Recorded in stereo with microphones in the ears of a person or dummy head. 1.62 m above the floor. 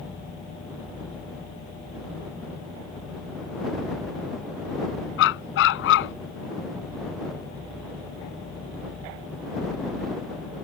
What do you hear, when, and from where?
5.2 s a dog barking: 65° left (ahead or behind)